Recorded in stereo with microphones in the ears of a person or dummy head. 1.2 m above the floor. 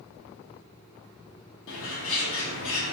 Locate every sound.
1.7 s a bird: 65° left (ahead or behind), 1.2 m